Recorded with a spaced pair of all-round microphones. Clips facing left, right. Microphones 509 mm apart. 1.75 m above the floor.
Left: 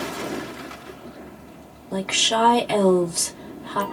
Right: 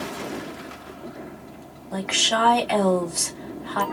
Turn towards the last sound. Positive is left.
turn(degrees=55)  # may be behind; listen again after turning